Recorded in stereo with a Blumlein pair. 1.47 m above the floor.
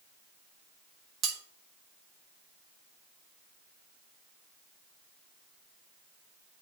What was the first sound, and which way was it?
Cutlery clinking, 30° right.